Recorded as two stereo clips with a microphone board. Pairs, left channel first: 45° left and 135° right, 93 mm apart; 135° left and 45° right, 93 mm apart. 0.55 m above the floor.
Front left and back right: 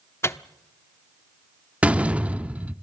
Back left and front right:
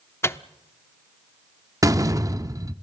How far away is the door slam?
About 0.6 m.